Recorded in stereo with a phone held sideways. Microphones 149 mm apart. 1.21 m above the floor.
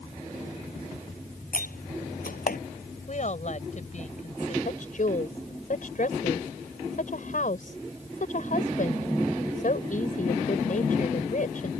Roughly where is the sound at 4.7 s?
Left.